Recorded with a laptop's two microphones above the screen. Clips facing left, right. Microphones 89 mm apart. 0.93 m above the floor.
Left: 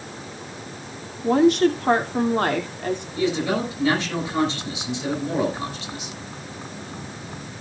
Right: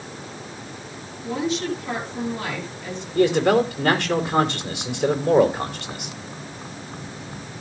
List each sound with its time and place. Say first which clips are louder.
1.2 s a woman speaking: left 9 dB; 55° left (ahead or behind), 2.5 m
3.1 s a man speaking: right 8 dB; 60° right (ahead or behind), 4 m